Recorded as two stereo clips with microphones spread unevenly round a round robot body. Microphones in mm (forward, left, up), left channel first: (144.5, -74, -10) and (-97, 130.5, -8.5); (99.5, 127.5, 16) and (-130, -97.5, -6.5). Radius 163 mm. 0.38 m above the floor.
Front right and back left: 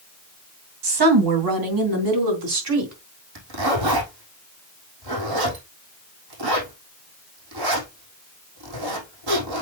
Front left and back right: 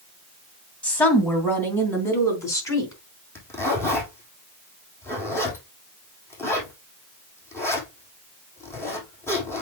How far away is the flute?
No flute in this recording.